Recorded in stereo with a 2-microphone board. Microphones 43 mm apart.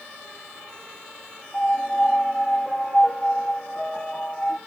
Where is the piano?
15° left (ahead or behind), 0.6 m.